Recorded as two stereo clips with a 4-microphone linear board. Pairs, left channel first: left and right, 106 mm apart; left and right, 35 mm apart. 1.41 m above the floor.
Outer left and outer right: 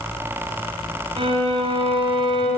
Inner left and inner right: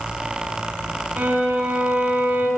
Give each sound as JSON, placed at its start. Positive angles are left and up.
{"t": 1.2, "sound": "a violin", "side_deg": -55, "distance_m": 2.5}